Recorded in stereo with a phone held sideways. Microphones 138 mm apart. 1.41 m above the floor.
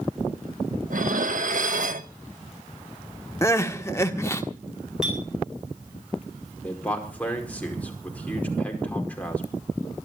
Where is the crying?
20° left (ahead or behind), 1.5 m.